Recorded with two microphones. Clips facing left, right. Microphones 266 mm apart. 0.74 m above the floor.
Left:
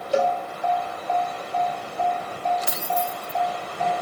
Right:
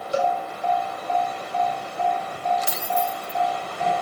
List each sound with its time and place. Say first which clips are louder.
0.1 s a cowbell: left 2 dB; 65° left (ahead or behind), 1.1 m
2.7 s keys jangling: right 1 dB; 75° left (ahead or behind), 4 m